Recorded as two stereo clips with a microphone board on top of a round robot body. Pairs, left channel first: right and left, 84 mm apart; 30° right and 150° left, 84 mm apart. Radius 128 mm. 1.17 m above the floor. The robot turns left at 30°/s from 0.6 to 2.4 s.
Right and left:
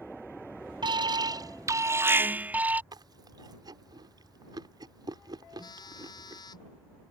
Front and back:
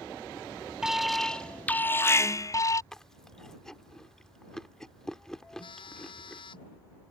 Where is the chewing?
55° left.